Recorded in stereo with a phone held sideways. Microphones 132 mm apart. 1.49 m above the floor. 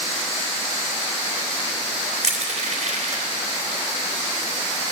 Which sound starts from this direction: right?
Crushing, at 2.2 s.